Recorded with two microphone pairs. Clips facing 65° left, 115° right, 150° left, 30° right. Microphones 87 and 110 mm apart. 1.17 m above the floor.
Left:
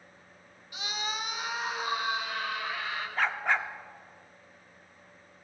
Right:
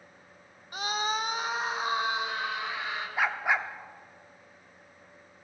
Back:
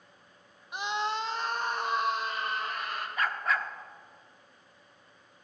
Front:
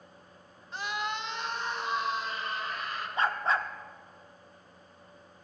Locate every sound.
0.7 s a scream: 135° right, 0.9 m; by 3.1 s straight behind, 3 m
3.2 s a dog barking: 45° right, 0.8 m